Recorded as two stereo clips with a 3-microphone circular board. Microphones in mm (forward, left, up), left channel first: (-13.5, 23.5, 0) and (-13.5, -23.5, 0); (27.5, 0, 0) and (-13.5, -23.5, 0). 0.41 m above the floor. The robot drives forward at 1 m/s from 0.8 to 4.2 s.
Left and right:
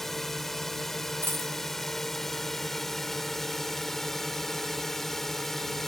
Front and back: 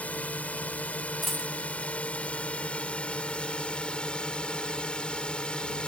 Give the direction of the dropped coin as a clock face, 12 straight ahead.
2 o'clock.